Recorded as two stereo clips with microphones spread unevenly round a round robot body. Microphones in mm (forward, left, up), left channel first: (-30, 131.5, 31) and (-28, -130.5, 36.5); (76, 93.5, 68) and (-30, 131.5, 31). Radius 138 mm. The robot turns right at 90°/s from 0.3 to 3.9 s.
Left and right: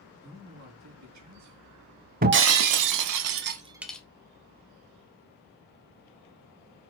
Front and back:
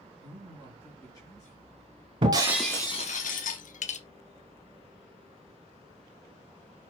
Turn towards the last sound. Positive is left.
turn(degrees=5)